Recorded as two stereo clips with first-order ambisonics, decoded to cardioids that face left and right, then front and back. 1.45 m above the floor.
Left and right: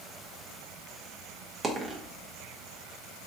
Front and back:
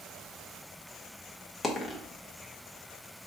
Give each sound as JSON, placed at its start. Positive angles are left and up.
{"t": 1.6, "sound": "a dropped coin", "azimuth_deg": -75, "distance_m": 0.8}